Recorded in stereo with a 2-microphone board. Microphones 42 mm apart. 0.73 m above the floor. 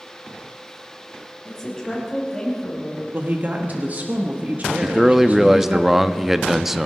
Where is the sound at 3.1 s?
40° right (ahead or behind), 1.2 m.